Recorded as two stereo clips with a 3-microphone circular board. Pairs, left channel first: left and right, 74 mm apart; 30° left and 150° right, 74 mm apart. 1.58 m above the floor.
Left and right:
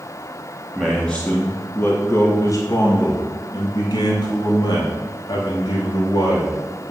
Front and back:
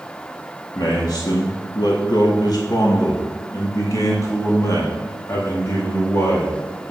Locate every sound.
0.8 s a man speaking: straight ahead, 1.0 m; by 6.9 s 85° left, 3 m